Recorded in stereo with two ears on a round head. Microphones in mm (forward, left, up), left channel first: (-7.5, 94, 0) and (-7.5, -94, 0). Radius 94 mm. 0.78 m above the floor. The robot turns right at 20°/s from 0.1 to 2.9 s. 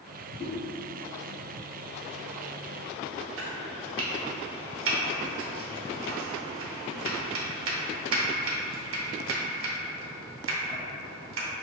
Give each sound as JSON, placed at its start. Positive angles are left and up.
{"t": 0.4, "sound": "a whoosh", "side_deg": 25, "distance_m": 1.8}
{"t": 3.4, "sound": "chopping", "side_deg": -65, "distance_m": 0.7}